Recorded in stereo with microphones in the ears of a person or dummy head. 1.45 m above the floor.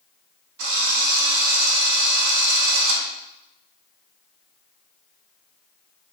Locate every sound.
0.6 s a drill: 70° right (ahead or behind), 2 m